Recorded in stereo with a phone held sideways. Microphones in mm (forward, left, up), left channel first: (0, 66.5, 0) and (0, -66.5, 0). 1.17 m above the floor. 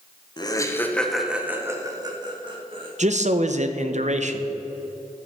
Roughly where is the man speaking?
Right.